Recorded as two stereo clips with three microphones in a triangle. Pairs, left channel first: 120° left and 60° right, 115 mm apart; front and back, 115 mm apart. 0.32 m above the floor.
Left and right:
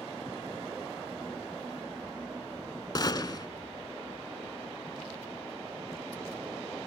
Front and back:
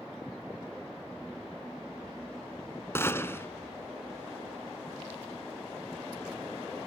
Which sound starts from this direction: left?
A gunshot, at 3.0 s.